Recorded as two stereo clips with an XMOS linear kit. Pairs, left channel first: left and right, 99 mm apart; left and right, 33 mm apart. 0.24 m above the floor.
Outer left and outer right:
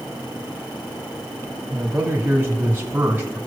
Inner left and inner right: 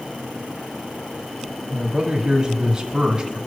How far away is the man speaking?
About 1.3 m.